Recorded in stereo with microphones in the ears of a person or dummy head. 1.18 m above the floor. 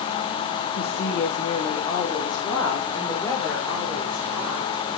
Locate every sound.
0.8 s a woman speaking: 50° left (ahead or behind), 1.2 m; by 4.7 s 5° left (ahead or behind), 4.5 m